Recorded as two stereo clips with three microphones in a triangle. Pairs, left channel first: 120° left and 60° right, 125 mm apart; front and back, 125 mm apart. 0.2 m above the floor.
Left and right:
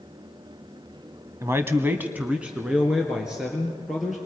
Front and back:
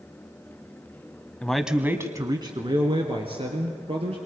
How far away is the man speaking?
About 1.0 m.